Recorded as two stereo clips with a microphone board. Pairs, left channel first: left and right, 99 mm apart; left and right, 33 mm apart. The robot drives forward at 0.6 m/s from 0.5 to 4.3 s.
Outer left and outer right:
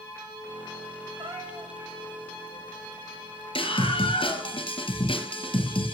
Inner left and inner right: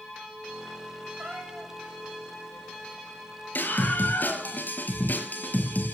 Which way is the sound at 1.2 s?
60° right (ahead or behind).